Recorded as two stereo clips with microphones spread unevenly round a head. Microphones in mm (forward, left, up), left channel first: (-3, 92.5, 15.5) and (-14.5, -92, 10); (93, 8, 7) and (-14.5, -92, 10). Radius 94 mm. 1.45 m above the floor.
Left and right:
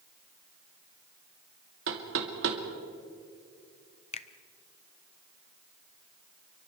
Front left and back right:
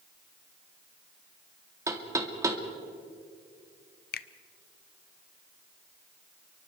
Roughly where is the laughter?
No laughter in this recording.